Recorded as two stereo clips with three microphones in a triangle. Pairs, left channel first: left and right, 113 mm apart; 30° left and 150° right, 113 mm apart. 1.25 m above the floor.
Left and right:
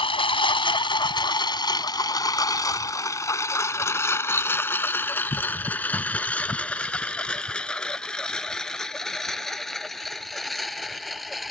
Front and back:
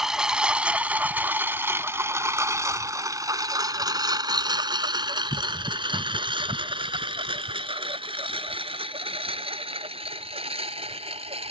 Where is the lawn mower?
125° left; by 11.5 s straight behind.